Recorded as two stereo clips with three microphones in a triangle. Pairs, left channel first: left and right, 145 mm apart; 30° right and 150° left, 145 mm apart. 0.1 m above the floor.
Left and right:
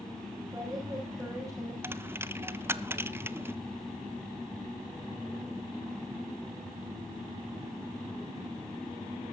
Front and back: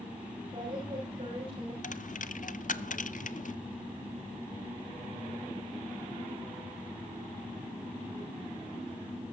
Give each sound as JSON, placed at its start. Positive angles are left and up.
{"t": 0.5, "sound": "a woman speaking", "azimuth_deg": -155, "distance_m": 8.5}
{"t": 1.8, "sound": "a dropped coin", "azimuth_deg": -15, "distance_m": 0.6}